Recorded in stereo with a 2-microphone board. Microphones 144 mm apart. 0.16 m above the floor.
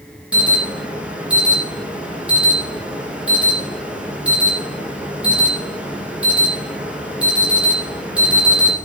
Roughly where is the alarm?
Centre.